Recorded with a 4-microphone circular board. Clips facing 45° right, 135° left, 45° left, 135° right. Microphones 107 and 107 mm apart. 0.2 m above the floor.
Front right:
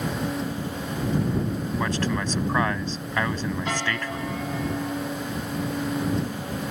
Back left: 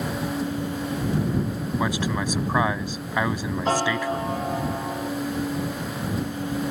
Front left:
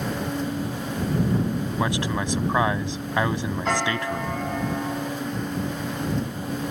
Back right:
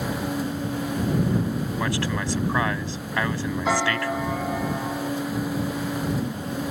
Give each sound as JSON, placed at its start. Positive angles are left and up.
{"t": 1.8, "sound": "a man speaking", "azimuth_deg": 75}
{"t": 3.6, "sound": "a piano", "azimuth_deg": 145}